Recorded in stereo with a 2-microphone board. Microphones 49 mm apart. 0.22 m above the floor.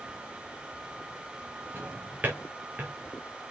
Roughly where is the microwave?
I don't hear a microwave.